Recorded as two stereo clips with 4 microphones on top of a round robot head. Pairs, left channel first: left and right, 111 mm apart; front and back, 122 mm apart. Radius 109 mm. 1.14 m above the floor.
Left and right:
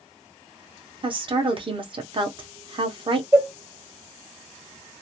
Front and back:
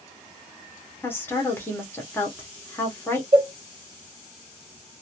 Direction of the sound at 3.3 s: 155° right.